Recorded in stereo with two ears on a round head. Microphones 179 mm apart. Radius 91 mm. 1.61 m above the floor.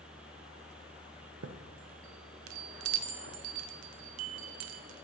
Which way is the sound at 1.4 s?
85° right.